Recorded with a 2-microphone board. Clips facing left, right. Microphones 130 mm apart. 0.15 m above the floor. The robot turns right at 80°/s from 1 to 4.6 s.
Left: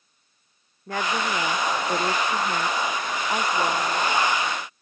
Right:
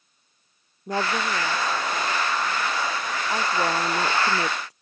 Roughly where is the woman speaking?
Ahead.